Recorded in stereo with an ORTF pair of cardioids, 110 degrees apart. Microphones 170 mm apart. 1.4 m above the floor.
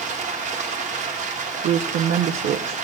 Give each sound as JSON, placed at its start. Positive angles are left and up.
{"t": 0.0, "sound": "running water", "azimuth_deg": -45, "distance_m": 1.4}
{"t": 1.6, "sound": "a woman speaking", "azimuth_deg": -60, "distance_m": 0.7}